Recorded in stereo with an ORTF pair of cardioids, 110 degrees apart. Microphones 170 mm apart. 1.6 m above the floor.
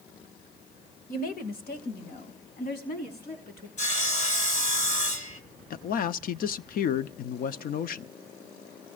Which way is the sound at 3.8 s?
45° left.